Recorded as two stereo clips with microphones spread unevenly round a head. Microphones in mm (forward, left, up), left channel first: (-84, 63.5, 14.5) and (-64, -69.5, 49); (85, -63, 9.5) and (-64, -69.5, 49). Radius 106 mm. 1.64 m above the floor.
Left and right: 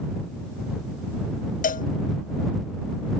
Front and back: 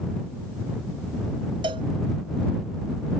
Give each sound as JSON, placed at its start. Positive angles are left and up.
{"t": 1.6, "sound": "a cowbell", "azimuth_deg": 125}